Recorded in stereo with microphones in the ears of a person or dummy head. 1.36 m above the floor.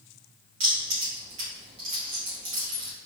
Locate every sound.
0.6 s keys jangling: 30° right (ahead or behind), 1.0 m